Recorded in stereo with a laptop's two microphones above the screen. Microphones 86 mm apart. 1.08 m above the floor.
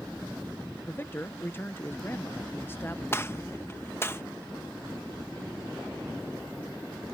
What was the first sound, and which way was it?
A man speaking, 25° left (ahead or behind).